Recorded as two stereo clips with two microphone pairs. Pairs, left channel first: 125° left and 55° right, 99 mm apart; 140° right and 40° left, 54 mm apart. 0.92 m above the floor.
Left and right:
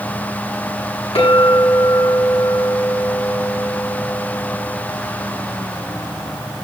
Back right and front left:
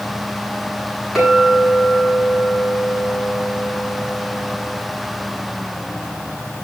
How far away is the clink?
About 9.5 m.